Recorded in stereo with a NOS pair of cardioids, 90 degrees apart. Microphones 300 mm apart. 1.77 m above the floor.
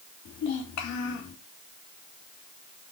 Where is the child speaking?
70° left, 3 m.